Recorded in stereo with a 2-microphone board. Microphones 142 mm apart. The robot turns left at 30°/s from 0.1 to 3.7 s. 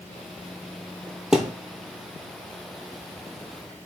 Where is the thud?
5° right (ahead or behind), 0.7 m; by 1.5 s 10° right (ahead or behind), 0.7 m.